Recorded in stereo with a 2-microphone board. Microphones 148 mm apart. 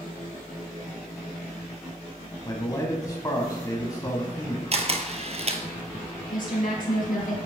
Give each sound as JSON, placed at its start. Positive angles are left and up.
{"t": 2.5, "sound": "a man speaking", "side_deg": 25, "distance_m": 1.0}
{"t": 4.7, "sound": "a camera shutter", "side_deg": -45, "distance_m": 0.9}
{"t": 6.3, "sound": "a woman speaking", "side_deg": 70, "distance_m": 3.0}